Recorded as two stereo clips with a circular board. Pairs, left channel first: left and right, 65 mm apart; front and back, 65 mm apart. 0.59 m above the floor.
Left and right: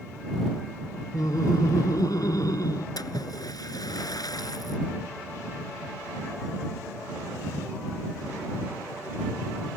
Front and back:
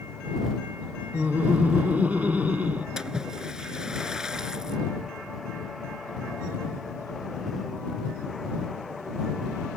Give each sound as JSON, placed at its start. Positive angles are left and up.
{"t": 1.1, "sound": "laughter", "azimuth_deg": 115}
{"t": 3.0, "sound": "a splash", "azimuth_deg": 100}